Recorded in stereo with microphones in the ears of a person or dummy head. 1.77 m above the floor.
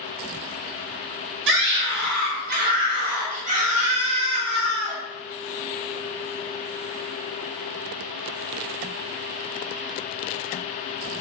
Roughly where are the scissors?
I don't hear scissors.